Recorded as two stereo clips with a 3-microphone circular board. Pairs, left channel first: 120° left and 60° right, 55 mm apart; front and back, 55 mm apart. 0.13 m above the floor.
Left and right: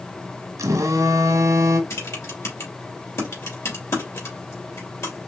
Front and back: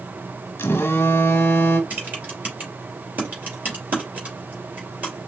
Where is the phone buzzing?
50° right, 1.1 m.